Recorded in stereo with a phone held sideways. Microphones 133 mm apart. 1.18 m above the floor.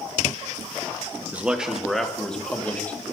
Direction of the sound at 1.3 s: 10° right (ahead or behind).